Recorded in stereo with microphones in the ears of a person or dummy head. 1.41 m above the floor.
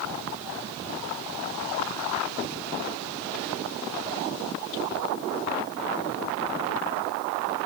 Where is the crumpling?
No crumpling in this recording.